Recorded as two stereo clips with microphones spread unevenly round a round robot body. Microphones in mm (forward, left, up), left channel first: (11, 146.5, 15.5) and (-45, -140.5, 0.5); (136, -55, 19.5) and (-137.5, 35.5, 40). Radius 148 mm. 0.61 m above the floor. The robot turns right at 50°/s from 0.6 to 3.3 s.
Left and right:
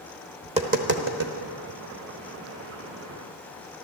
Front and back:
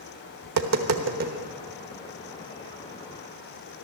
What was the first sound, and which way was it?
Tapping, 170° right.